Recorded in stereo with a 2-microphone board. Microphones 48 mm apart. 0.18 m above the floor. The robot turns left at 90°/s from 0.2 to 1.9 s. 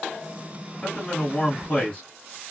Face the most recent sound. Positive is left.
turn(degrees=25)  # may be behind; listen again after turning